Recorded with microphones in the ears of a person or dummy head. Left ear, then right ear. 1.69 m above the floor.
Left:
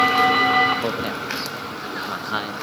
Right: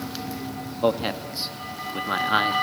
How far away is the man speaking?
About 0.9 m.